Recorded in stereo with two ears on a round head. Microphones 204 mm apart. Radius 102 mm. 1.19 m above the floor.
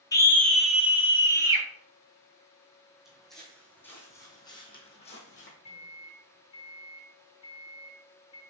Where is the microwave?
25° left (ahead or behind), 1.7 m.